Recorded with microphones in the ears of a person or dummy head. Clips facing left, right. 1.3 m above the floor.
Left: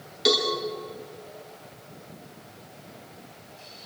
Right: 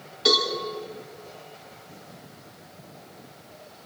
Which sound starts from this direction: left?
A cowbell, at 0.2 s.